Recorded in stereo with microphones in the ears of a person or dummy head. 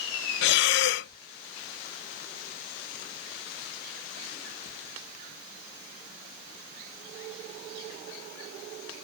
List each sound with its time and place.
0.4 s breathing: 55° left (ahead or behind)